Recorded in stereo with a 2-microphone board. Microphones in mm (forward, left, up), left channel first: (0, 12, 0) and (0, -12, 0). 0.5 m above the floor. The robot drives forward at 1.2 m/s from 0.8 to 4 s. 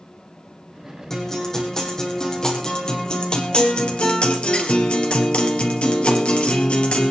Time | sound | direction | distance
1.1 | a guitar | 20° left (ahead or behind) | 5.5 m